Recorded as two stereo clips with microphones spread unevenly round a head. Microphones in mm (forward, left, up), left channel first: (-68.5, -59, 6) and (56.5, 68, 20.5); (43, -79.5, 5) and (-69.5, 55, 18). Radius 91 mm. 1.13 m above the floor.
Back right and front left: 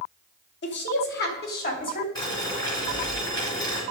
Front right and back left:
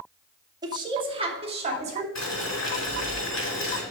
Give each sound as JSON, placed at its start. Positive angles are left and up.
{"t": 0.6, "sound": "a woman speaking", "azimuth_deg": -160, "distance_m": 1.9}
{"t": 2.1, "sound": "boiling", "azimuth_deg": -65, "distance_m": 5.0}